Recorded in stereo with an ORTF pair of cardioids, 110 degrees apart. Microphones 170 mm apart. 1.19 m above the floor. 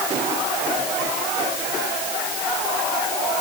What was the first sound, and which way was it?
Only background noise.